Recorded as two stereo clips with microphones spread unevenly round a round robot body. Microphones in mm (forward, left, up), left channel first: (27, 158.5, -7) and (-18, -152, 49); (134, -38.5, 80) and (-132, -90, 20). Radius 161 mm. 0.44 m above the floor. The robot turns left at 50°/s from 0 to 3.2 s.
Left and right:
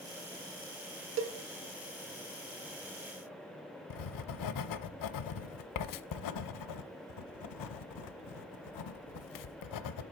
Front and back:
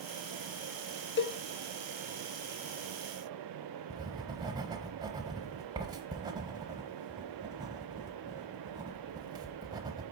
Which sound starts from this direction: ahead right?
A cowbell, at 1.2 s.